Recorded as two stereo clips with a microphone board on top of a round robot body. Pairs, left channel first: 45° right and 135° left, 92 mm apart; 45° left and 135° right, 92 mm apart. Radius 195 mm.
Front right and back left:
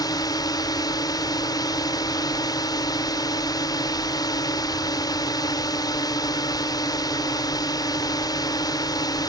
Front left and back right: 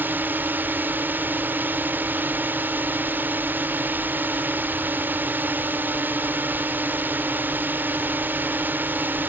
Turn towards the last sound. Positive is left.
turn(degrees=-70)